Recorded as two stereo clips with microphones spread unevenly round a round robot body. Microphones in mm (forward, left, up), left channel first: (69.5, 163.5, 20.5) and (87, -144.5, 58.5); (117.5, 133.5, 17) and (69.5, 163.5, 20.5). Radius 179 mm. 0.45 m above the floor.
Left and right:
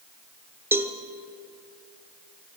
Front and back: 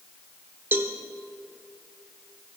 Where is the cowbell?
175° right, 1.1 m.